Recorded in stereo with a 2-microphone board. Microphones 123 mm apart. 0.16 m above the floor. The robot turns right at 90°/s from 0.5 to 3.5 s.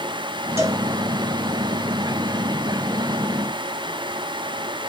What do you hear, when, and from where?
0.6 s a cowbell: 20° right (ahead or behind), 2.5 m; by 0.8 s 35° right (ahead or behind), 2.5 m